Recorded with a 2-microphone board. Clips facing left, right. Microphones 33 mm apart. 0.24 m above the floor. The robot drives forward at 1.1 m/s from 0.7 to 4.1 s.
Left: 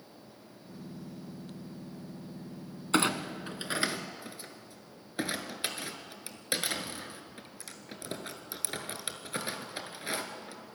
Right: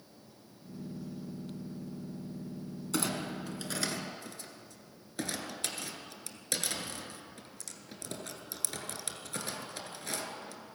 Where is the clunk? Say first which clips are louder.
Left 6 dB; 50° left (ahead or behind), 1.3 m; by 10.6 s 25° left (ahead or behind), 2 m.